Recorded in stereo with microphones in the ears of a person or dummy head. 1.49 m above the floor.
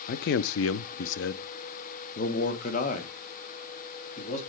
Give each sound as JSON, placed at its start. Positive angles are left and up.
{"t": 0.1, "sound": "a man speaking", "side_deg": 55, "distance_m": 0.5}